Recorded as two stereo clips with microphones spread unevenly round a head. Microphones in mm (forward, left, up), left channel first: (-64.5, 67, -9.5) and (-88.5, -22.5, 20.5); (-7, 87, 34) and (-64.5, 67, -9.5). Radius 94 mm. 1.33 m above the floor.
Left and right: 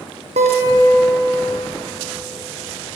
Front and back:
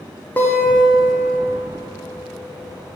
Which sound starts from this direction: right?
A guitar, at 0.4 s.